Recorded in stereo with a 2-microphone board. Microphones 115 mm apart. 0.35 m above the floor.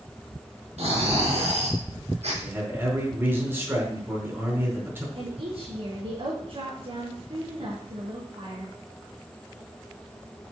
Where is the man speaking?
20° right (ahead or behind), 4 m.